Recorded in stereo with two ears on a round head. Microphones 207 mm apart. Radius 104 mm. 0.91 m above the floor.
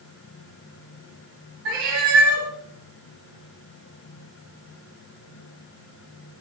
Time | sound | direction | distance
1.6 | a cat meowing | 70° right (ahead or behind) | 1.8 m